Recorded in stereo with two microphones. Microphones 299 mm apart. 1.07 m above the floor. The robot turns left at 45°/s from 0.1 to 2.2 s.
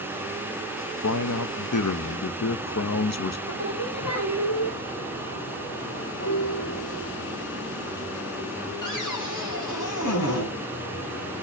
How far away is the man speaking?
About 1.1 m.